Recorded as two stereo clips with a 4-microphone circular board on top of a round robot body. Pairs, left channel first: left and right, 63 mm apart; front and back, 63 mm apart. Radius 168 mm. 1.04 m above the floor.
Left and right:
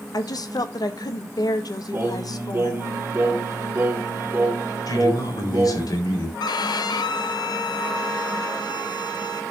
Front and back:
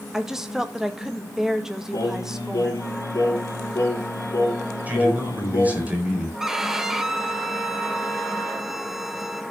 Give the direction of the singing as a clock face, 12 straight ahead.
1 o'clock.